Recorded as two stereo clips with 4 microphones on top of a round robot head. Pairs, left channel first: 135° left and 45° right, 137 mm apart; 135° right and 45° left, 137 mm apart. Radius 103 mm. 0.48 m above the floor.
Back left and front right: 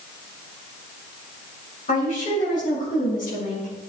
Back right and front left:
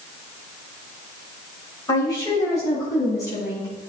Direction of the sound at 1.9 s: 160° left.